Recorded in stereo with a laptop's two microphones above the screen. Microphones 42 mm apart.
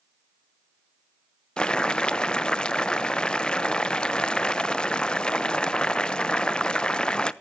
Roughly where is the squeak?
I don't hear a squeak.